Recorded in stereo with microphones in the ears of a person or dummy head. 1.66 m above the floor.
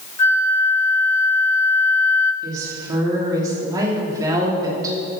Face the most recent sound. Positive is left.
turn(degrees=-20)  # may be behind; listen again after turning